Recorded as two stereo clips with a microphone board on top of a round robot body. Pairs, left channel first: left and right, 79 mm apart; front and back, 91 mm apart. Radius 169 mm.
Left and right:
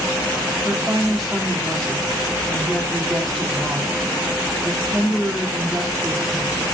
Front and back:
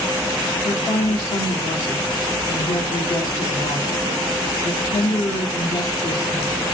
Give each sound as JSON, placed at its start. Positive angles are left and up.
{"t": 0.6, "sound": "a woman speaking", "azimuth_deg": 0, "distance_m": 1.6}